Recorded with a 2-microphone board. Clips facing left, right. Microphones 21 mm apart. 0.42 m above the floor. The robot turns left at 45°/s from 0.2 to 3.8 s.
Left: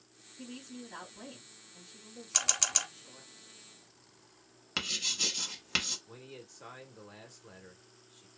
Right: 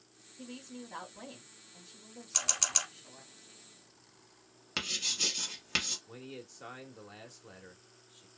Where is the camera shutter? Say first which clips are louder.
Left 1 dB; 20° left (ahead or behind), 0.8 m; by 2.9 s centre (ahead or behind), 0.8 m.